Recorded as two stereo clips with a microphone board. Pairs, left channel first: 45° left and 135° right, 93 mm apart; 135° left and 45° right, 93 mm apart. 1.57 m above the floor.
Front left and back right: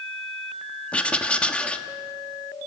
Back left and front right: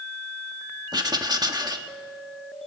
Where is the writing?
30° right, 1.4 m.